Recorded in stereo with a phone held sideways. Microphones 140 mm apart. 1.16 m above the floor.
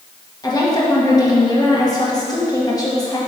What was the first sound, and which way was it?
A woman speaking, 25° left (ahead or behind).